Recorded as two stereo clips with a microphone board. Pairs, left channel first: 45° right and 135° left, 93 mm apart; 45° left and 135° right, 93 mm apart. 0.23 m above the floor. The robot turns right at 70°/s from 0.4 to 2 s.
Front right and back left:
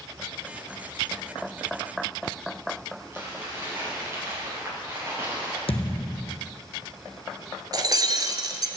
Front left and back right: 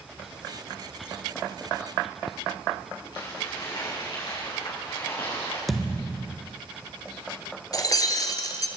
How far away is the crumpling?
About 5.5 m.